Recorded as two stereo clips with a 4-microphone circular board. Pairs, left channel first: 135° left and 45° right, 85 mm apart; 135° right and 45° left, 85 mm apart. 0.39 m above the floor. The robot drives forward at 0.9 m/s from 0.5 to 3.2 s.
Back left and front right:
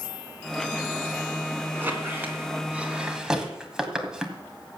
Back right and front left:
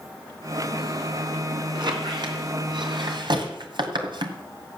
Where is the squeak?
20° left, 3 m; by 4.4 s 35° left, 1.8 m.